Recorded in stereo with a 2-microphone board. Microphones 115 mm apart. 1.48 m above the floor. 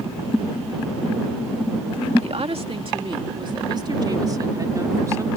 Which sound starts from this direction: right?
A woman speaking, at 2.2 s.